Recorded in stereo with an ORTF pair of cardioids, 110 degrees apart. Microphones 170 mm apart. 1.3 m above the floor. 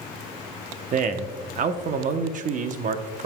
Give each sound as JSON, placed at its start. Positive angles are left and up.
{"t": 0.9, "sound": "a man speaking", "azimuth_deg": -50, "distance_m": 0.8}